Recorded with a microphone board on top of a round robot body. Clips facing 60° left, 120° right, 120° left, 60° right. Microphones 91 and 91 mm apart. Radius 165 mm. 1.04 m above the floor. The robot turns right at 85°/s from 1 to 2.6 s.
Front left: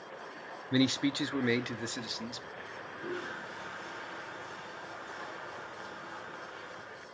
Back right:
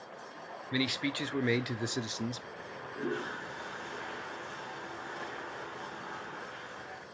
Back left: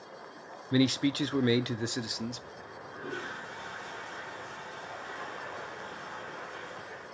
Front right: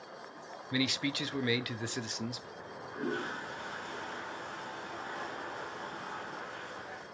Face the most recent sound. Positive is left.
turn(degrees=-95)